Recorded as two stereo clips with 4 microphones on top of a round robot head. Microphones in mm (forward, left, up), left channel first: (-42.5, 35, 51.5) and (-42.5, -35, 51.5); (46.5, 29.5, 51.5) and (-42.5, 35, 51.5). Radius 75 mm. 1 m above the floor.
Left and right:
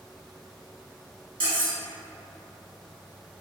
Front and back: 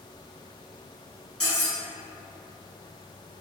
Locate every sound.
1.4 s cutlery clinking: 90° right, 1.5 m